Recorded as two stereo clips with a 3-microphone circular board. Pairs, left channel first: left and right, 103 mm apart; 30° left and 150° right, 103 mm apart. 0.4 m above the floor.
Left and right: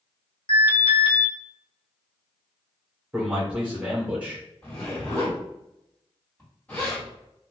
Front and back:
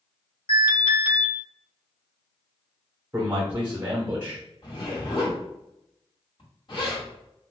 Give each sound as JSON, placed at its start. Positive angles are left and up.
{"t": 0.5, "sound": "an alarm", "azimuth_deg": 60, "distance_m": 1.3}
{"t": 3.1, "sound": "a man speaking", "azimuth_deg": -140, "distance_m": 1.0}
{"t": 4.6, "sound": "a zipper", "azimuth_deg": 20, "distance_m": 1.9}